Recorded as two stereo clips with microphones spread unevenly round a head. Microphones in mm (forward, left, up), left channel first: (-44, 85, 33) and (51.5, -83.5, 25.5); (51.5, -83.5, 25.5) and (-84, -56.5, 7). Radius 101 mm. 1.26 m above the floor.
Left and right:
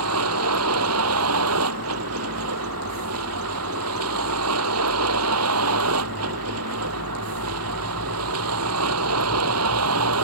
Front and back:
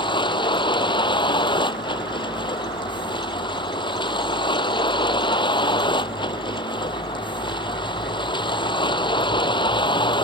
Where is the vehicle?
65° right.